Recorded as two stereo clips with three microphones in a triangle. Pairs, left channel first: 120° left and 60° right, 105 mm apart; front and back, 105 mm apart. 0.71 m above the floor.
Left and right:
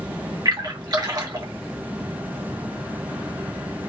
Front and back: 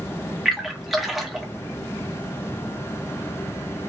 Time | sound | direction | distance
0.5 | a splash | 90° right | 1.3 m